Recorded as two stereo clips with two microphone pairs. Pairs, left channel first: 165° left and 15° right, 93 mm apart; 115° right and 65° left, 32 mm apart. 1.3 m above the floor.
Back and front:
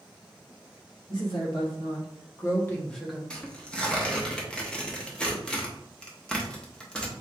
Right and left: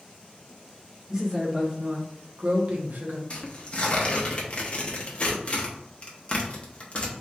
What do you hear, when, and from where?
1.1 s a woman speaking: 140° left, 1.7 m; by 3.2 s 70° left, 0.8 m
3.3 s tearing paper: 120° right, 0.9 m